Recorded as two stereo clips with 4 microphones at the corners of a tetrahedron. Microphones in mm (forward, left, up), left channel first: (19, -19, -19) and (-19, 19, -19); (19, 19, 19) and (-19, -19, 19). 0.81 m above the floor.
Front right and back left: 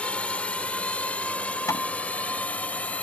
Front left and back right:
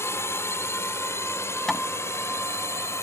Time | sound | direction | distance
0.0 | a drone | 20° left | ?
1.7 | hammering | 35° right | ?